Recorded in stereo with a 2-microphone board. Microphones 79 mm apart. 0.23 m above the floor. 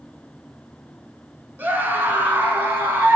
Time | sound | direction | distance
1.6 | a scream | 25° right (ahead or behind) | 2 m